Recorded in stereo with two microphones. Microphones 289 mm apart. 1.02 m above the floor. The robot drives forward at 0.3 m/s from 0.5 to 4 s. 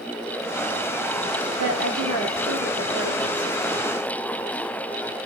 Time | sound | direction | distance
1.6 | a woman speaking | 80° right | 4 m